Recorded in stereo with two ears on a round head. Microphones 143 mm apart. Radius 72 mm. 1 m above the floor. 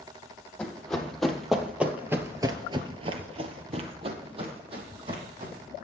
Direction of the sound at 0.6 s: 5° left (ahead or behind).